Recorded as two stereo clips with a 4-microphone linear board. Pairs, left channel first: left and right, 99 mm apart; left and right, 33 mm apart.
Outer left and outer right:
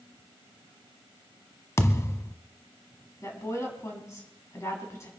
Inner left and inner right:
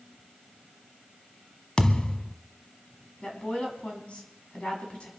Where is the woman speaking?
30° left (ahead or behind), 5.5 m.